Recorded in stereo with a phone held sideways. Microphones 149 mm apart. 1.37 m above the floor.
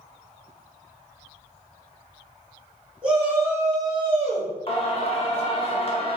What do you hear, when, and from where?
3.0 s a shout: 5° right (ahead or behind), 1.5 m; by 4.5 s 60° right (ahead or behind), 0.7 m
4.7 s singing: 40° left (ahead or behind), 0.6 m